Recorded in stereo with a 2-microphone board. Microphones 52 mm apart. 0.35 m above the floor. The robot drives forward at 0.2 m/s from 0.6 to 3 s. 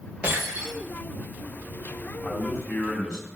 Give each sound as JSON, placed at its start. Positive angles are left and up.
{"t": 0.2, "sound": "breaking glass", "side_deg": -25, "distance_m": 5.5}
{"t": 2.2, "sound": "a man speaking", "side_deg": 25, "distance_m": 2.0}